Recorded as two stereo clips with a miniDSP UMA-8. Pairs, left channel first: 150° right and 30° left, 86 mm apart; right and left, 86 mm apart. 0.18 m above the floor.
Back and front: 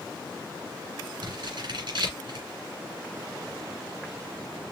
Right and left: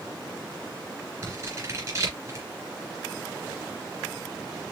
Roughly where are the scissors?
Ahead left.